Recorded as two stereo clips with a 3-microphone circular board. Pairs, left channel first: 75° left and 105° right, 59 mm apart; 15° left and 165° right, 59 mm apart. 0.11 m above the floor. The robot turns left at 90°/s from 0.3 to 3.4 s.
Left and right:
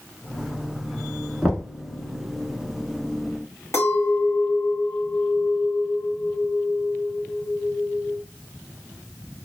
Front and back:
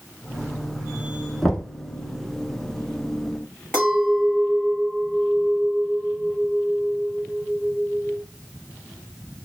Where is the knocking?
65° right, 0.7 m; by 1.7 s 90° right, 0.7 m.